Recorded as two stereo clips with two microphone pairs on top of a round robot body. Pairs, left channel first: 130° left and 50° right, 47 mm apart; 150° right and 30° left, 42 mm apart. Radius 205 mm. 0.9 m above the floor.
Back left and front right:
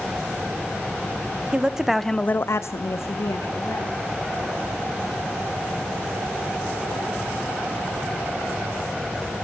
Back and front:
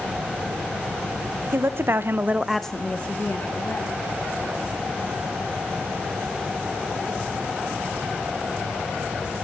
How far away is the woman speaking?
About 1.3 m.